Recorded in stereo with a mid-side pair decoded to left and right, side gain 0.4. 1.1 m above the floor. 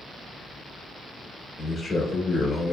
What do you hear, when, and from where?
1.6 s a man speaking: 55° left, 1.3 m